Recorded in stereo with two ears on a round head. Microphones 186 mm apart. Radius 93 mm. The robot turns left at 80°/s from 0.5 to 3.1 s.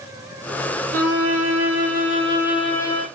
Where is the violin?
45° right, 1.7 m; by 3.0 s 145° left, 1.7 m.